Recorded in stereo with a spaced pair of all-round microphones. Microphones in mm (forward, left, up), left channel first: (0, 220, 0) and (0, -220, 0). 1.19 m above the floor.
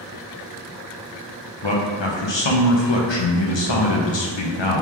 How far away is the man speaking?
About 0.8 m.